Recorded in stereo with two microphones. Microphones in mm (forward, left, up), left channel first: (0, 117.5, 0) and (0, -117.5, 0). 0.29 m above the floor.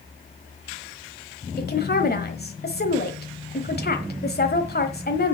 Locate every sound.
1.6 s a woman speaking: 45° left (ahead or behind), 1.2 m